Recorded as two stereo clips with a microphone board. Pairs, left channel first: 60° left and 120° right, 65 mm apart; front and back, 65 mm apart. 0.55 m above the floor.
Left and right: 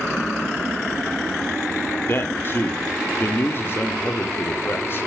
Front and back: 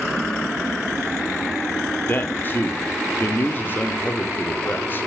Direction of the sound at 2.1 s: 40° left.